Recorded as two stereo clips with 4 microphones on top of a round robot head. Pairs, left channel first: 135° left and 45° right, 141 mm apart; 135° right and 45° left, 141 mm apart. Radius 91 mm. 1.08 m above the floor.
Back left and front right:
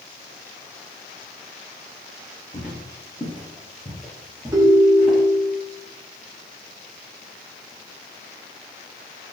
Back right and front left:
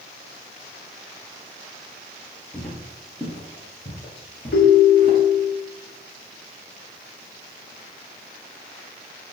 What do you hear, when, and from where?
2.5 s footsteps: 140° left, 1.3 m; by 5.2 s 120° right, 1.5 m
4.5 s a ringtone: 110° right, 0.6 m